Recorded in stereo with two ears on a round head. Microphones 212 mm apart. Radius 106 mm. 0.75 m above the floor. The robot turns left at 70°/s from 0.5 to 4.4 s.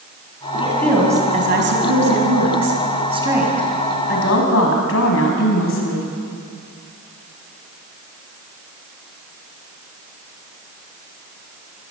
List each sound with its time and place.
0.6 s a woman speaking: 25° left, 5 m; by 6.1 s 115° left, 5 m